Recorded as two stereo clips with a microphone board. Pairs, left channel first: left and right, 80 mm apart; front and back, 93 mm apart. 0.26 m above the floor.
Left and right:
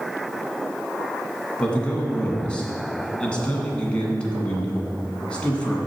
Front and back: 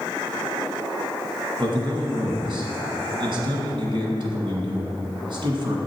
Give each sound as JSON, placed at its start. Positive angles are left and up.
{"t": 1.6, "sound": "a man speaking", "azimuth_deg": 165, "distance_m": 2.0}